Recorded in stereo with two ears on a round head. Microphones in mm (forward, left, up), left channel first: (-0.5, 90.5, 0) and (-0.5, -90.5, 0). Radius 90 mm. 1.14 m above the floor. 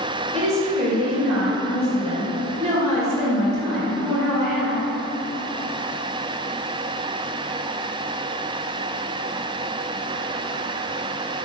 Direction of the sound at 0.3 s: 35° right (ahead or behind).